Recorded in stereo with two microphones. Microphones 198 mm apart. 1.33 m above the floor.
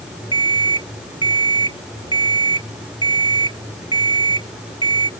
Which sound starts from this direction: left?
An alarm clock, at 0.3 s.